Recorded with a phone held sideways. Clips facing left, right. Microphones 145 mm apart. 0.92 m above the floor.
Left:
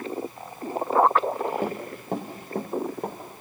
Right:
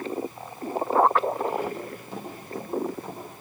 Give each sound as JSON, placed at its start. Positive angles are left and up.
{"t": 1.6, "sound": "running footsteps", "side_deg": 60, "distance_m": 5.5}